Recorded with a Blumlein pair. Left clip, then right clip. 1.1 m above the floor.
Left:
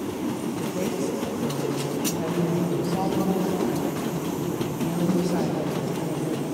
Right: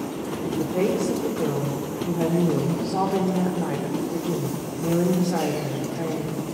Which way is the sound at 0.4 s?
55° right.